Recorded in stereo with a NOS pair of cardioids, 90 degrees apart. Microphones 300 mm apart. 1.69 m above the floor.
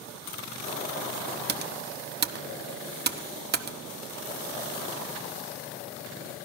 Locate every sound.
1.5 s typing on a keyboard: 35° right, 1.0 m